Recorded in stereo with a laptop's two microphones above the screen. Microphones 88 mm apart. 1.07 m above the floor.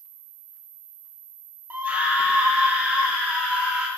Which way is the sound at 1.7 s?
20° right (ahead or behind).